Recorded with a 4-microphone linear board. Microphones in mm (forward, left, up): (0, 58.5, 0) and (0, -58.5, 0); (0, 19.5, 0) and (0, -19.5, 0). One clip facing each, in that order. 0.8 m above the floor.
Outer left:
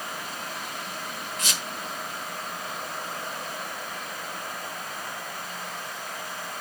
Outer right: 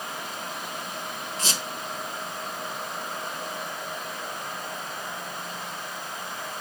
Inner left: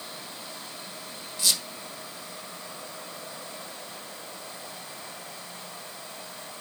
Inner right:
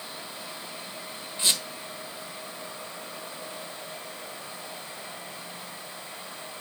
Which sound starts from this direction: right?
A squeak, at 1.4 s.